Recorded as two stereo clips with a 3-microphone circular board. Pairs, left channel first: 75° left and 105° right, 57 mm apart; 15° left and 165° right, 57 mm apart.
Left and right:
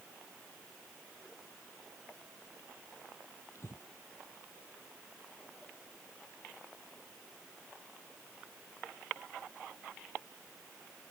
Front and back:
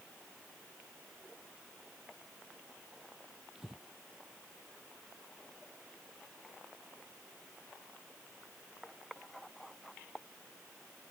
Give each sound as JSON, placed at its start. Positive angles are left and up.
{"t": 3.5, "sound": "breathing", "azimuth_deg": 115}